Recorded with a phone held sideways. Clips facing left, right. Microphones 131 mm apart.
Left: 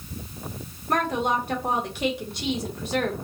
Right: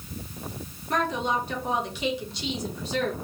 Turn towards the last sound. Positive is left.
turn(degrees=50)  # may be behind; listen again after turning